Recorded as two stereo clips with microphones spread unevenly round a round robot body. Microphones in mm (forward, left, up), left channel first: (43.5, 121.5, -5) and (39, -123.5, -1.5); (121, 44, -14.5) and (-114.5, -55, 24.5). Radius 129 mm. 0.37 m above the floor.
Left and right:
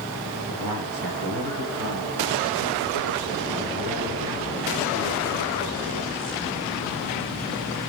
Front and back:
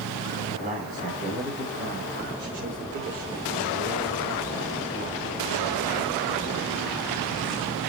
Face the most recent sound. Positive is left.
turn(degrees=-120)